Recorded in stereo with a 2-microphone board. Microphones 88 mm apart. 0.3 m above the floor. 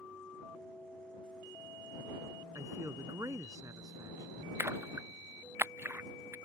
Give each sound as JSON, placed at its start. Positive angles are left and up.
{"t": 2.5, "sound": "a man speaking", "side_deg": -35}
{"t": 4.6, "sound": "a splash", "side_deg": -25}